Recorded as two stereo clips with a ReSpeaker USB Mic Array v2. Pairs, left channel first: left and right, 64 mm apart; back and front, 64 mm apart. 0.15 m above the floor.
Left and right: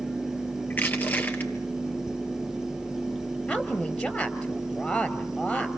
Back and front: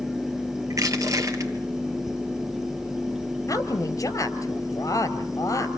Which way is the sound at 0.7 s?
30° left.